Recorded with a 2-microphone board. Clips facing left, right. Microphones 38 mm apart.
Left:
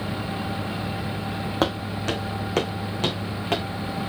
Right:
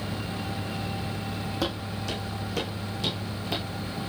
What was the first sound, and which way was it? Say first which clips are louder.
Footsteps: left 8 dB; 55° left (ahead or behind).